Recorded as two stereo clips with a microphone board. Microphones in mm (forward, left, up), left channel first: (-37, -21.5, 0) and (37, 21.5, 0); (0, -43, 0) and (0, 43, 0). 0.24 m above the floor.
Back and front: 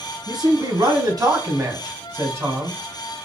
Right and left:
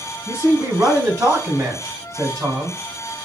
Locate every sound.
0.3 s a man speaking: 45° left, 2.5 m; by 2.8 s 75° left, 1.9 m